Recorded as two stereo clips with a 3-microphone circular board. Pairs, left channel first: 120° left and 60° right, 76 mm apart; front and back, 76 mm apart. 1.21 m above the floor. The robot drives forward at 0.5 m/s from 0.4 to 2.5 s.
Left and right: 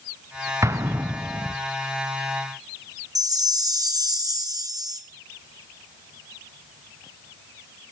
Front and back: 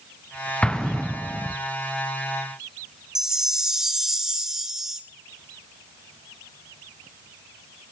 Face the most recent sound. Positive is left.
turn(degrees=-95)